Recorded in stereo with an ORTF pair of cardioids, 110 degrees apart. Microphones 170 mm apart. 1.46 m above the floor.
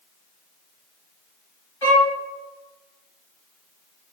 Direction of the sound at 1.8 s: 10° left.